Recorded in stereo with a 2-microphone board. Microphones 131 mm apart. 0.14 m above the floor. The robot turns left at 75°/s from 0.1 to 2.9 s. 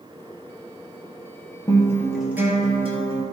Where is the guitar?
40° left, 1.7 m; by 3.2 s 55° right, 1.7 m.